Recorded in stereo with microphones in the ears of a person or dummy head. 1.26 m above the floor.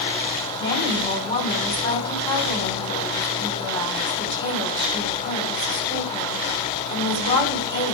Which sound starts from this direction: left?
A woman speaking, at 0.6 s.